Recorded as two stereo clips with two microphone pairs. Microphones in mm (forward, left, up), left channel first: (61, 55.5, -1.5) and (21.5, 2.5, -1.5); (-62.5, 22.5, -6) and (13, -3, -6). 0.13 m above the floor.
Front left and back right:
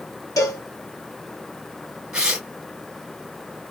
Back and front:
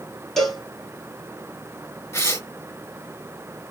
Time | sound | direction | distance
0.4 | a cowbell | 80° left | 1.6 m
2.1 | tearing paper | 160° left | 1.7 m